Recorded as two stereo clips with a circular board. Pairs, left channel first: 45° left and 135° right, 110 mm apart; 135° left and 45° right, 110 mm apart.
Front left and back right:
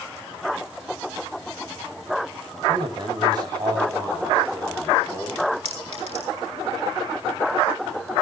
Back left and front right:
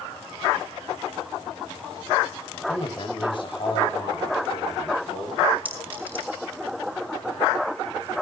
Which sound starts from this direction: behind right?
A clink, at 5.7 s.